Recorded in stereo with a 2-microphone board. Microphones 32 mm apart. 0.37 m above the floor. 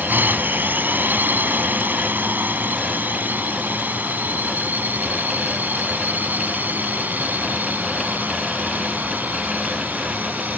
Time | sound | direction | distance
0.0 | a drone | 65° right (ahead or behind) | ?